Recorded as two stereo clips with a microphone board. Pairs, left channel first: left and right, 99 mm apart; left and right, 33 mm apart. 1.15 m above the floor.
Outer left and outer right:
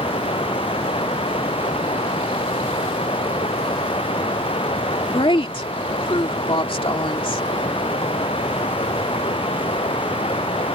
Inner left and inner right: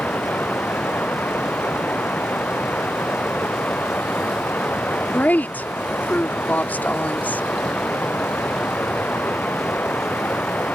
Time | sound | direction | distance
0.0 | running water | 70° left (ahead or behind) | ?
5.1 | a woman speaking | 65° left (ahead or behind) | ?